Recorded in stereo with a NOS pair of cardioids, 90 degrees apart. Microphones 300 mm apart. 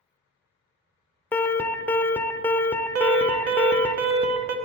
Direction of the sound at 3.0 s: 50° right.